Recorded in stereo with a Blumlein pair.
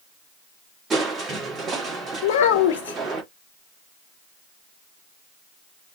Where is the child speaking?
50° left, 0.6 m.